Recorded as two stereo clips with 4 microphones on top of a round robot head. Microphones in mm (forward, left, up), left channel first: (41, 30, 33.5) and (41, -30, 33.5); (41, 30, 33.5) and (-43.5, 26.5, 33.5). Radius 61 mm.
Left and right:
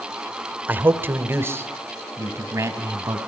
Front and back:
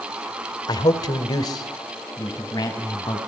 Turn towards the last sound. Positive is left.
turn(degrees=-50)